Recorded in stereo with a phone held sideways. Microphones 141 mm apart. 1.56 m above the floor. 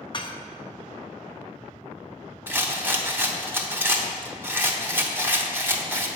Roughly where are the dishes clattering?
Left.